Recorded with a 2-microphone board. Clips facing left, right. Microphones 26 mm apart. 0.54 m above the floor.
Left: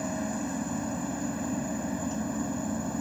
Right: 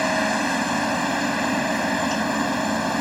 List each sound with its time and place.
0.0 s a helicopter: 65° right (ahead or behind)